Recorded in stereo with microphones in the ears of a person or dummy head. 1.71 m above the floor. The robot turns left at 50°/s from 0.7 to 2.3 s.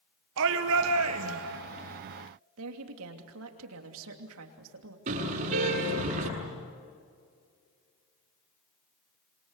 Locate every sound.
0.4 s a shout: 80° right, 1.7 m; by 1.6 s 125° right, 1.7 m
2.6 s a woman speaking: 85° right, 3 m
5.1 s a car horn: 45° right (ahead or behind), 7.5 m